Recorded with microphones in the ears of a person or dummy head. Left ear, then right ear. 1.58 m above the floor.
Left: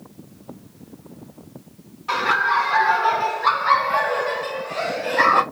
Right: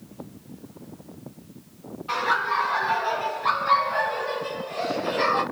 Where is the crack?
No crack in this recording.